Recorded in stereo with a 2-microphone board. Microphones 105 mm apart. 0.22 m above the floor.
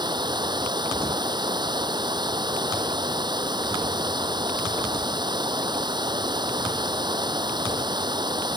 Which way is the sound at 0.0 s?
50° right (ahead or behind).